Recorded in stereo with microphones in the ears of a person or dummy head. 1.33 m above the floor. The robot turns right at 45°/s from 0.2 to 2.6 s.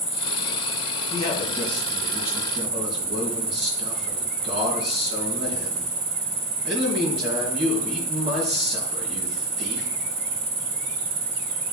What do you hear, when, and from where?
0.0 s an insect: 115° left, 1.1 m; by 11.7 s 140° right, 1.1 m
1.1 s a man speaking: 145° left, 4 m; by 9.9 s 145° right, 4 m